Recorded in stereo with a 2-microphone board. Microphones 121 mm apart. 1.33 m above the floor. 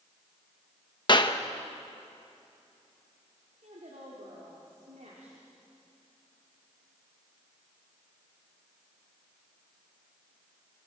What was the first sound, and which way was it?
A clap, 40° left (ahead or behind).